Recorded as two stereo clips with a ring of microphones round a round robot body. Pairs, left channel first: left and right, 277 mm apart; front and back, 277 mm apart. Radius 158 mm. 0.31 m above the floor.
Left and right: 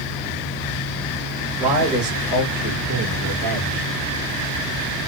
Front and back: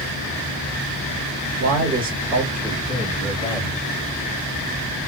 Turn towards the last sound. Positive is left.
turn(degrees=-60)